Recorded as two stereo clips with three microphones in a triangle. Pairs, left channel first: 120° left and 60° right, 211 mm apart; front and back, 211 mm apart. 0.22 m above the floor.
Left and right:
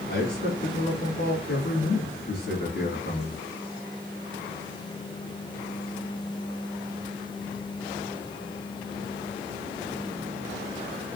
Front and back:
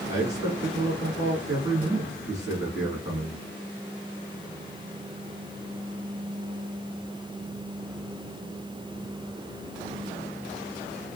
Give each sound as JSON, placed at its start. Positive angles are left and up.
{"t": 0.1, "sound": "a man speaking", "azimuth_deg": 110, "distance_m": 1.6}